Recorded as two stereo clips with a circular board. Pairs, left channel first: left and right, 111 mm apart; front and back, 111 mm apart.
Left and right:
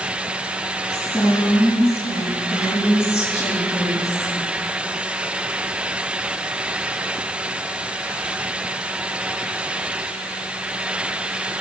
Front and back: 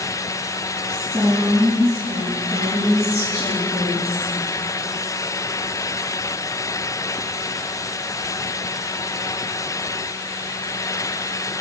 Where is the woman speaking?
165° right, 6 m; by 4.4 s straight behind, 7 m.